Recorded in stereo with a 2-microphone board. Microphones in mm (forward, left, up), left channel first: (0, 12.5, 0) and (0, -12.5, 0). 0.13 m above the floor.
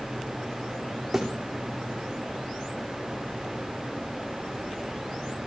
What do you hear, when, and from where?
1.1 s a thud: 15° right (ahead or behind), 3 m